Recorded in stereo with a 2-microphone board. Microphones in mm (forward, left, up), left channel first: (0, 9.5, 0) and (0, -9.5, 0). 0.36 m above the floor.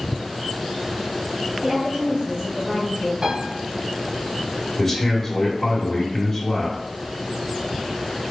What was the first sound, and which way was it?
A woman speaking, 50° right (ahead or behind).